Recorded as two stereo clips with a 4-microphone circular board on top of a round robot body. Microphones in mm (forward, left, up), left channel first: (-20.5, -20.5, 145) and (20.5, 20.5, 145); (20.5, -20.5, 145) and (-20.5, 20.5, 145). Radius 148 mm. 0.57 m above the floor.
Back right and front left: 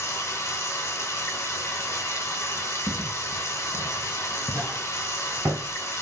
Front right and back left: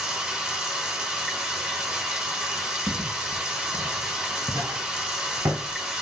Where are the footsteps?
135° right, 1.1 m; by 5.8 s 90° left, 0.8 m.